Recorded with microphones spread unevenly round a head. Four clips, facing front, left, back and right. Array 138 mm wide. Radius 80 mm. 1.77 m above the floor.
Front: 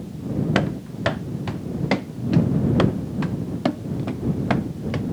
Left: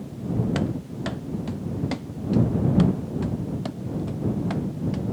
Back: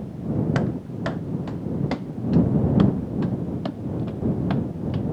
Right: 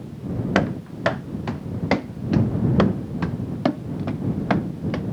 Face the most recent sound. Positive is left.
turn(degrees=-50)